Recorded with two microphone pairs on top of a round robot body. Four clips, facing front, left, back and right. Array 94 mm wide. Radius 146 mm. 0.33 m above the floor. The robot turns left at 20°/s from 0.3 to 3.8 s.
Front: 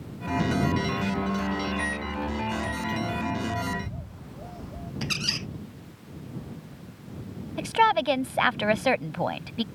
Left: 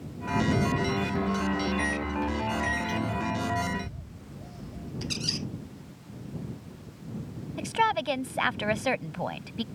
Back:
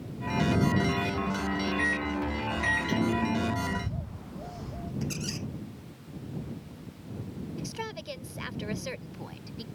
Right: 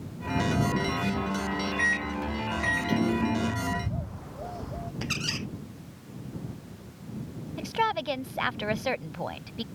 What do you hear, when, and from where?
1.8 s a microwave: 90° right; by 3.6 s 125° right
3.7 s a bird: 90° right
5.0 s a squeak: 40° right
7.6 s a woman speaking: 5° left